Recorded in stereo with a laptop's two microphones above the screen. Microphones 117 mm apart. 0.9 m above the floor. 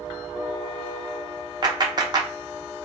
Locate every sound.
1.6 s a clap: 35° right (ahead or behind), 0.7 m